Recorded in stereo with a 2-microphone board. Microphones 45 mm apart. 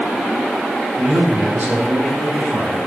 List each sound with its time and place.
1.0 s a man speaking: 50° right (ahead or behind), 6 m; by 2.8 s 65° right (ahead or behind), 7.5 m